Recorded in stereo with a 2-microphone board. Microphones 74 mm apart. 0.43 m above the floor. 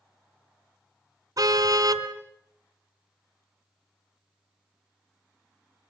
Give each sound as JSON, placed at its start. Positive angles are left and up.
{"t": 1.4, "sound": "a car horn", "side_deg": -60, "distance_m": 2.0}